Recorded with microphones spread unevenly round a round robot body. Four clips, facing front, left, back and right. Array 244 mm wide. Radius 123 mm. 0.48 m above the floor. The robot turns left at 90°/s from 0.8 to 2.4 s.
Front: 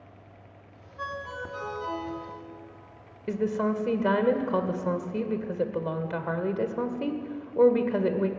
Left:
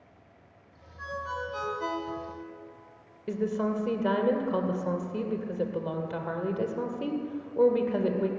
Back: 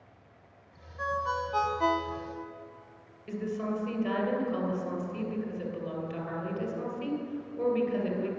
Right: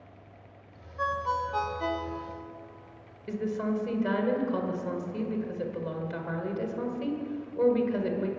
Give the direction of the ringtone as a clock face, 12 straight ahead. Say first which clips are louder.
Right 6 dB, back 5 dB; 3 o'clock.